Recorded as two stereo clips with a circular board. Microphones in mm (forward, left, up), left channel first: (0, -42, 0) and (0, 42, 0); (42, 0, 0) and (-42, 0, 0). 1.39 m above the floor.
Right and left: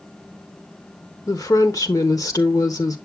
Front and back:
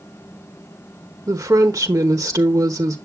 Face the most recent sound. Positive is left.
turn(degrees=-130)